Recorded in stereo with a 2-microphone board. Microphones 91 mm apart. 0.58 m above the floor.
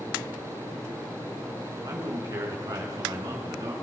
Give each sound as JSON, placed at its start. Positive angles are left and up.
{"t": 1.9, "sound": "a man speaking", "side_deg": -45, "distance_m": 7.5}